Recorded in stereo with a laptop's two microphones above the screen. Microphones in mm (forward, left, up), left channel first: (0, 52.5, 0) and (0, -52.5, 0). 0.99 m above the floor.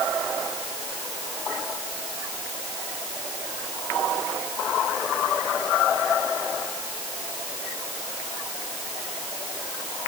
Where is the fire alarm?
No fire alarm in this recording.